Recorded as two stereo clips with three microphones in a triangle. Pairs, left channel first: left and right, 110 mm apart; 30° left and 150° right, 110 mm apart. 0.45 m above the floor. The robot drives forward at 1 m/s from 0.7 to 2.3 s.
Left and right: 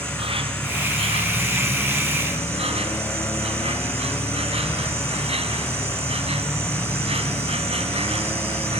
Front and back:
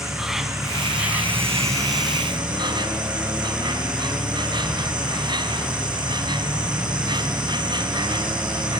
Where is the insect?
65° right, 2.5 m; by 8.8 s 105° right, 2 m.